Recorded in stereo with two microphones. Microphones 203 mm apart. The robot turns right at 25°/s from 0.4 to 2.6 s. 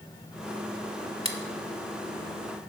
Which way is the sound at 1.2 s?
30° right (ahead or behind).